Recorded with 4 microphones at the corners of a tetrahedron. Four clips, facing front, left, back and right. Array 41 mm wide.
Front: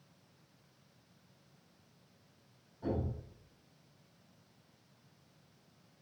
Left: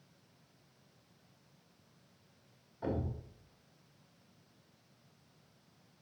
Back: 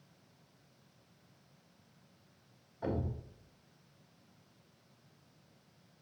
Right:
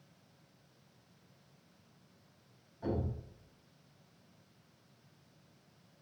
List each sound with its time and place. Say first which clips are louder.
2.8 s a thud: right 1 dB, even; 145° left, 2.5 m